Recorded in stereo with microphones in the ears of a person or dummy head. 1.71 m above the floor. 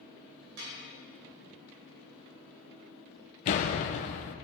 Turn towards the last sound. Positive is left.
turn(degrees=35)  # may be behind; listen again after turning